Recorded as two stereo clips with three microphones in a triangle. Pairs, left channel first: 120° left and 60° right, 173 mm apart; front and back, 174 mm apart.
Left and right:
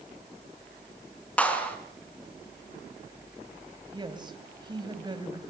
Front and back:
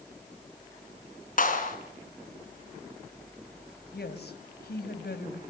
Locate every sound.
1.4 s a clap: 40° left, 3.5 m
3.9 s a woman speaking: 5° left, 2.5 m